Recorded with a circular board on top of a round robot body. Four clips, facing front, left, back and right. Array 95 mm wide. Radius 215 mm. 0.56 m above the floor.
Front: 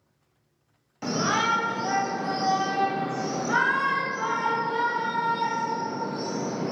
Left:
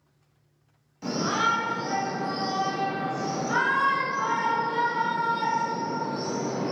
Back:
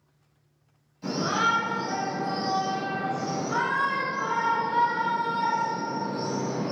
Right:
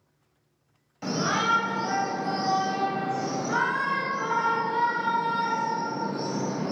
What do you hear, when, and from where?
1.0 s a shout: 15° right, 2.5 m; by 6.7 s 65° left, 3 m